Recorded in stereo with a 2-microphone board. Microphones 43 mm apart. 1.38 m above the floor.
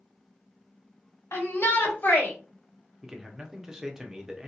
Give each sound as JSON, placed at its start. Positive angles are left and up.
{"t": 1.3, "sound": "a shout", "side_deg": 80, "distance_m": 1.2}
{"t": 3.0, "sound": "a man speaking", "side_deg": -15, "distance_m": 0.7}